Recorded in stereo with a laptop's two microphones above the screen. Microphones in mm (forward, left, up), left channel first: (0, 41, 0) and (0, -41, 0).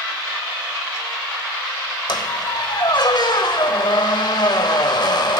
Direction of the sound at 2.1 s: 60° left (ahead or behind).